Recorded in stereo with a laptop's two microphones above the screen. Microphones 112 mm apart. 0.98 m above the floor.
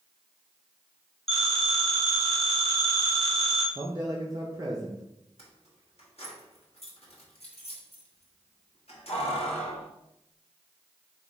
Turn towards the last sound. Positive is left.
turn(degrees=65)  # may be behind; listen again after turning